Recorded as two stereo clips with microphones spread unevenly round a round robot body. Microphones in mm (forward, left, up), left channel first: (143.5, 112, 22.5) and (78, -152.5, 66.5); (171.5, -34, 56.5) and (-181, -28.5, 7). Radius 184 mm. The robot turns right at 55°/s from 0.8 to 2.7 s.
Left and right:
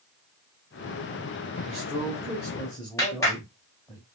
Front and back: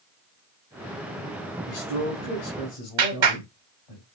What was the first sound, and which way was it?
A man speaking, 55° right.